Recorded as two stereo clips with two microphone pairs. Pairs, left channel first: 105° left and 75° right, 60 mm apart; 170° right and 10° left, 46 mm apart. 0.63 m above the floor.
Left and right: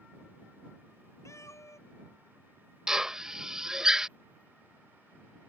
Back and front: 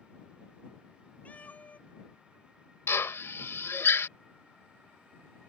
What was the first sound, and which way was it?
A cat meowing, 135° left.